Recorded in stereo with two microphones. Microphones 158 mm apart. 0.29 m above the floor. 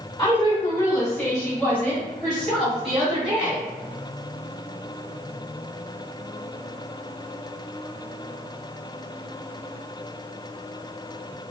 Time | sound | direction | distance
0.2 | a woman speaking | 30° left (ahead or behind) | 1.7 m